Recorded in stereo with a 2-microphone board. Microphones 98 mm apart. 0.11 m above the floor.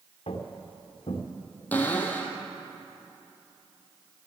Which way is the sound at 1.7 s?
15° left (ahead or behind).